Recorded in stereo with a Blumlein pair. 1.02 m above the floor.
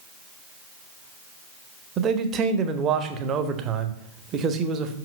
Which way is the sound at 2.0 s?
30° right.